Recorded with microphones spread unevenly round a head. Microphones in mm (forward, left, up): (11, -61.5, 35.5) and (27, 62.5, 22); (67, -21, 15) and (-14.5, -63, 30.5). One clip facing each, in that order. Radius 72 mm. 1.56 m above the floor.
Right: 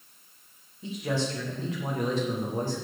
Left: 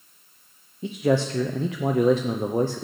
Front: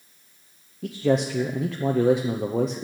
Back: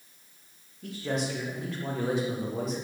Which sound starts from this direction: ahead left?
A man speaking, at 0.8 s.